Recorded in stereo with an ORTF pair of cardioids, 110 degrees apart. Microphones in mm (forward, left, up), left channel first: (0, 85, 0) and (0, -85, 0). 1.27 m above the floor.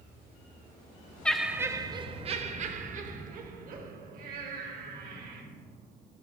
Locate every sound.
1.2 s laughter: 5° left, 0.6 m; by 5.4 s 65° right, 2.5 m